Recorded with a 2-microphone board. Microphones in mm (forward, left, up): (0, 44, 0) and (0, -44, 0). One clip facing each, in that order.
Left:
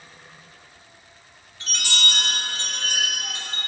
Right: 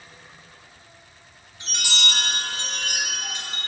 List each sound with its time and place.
1.6 s a chime: 20° right (ahead or behind), 1.2 m